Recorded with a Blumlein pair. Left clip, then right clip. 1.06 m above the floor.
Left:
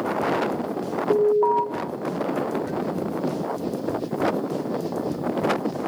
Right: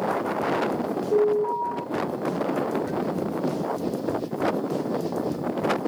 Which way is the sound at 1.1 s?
40° left.